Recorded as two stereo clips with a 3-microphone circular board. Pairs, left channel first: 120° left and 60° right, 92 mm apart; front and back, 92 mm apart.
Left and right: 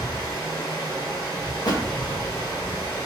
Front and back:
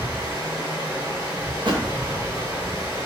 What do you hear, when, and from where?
0.0 s running water: 130° left, 1.8 m
1.6 s a thud: 155° left, 0.7 m